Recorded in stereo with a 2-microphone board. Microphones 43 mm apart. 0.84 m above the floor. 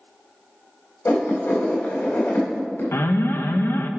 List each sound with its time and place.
1.1 s writing: 70° left (ahead or behind), 3 m
2.9 s an alarm: 70° left (ahead or behind), 0.5 m